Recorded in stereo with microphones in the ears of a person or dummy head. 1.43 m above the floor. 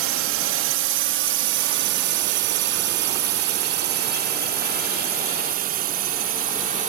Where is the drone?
65° right (ahead or behind); by 6.9 s 40° right (ahead or behind).